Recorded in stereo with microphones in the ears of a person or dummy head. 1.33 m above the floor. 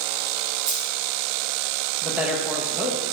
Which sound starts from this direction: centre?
A woman speaking, at 2.0 s.